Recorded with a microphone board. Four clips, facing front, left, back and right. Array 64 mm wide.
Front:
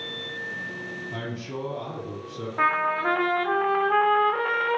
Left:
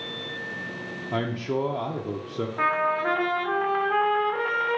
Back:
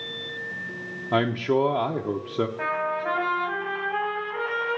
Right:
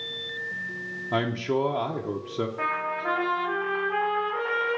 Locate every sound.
1.1 s a man speaking: 170° right, 0.7 m
2.6 s a trumpet: 20° left, 1.8 m